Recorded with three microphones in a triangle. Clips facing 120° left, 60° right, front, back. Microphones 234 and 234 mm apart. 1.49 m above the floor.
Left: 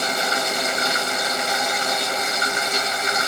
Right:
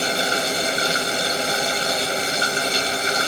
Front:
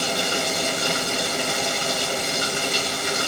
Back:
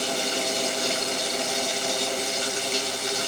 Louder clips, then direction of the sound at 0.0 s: Right 2 dB, front 2 dB; straight ahead.